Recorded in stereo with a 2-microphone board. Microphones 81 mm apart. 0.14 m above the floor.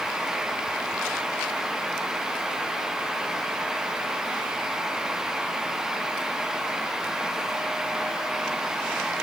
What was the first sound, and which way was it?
Only background noise.